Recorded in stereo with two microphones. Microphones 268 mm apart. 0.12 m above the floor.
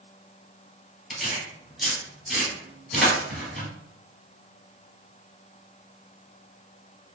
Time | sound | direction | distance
1.1 | tearing paper | centre (ahead or behind) | 1.4 m